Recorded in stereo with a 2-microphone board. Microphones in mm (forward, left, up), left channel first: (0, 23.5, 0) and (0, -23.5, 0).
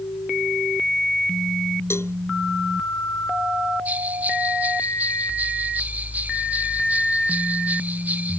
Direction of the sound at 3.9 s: 35° right (ahead or behind).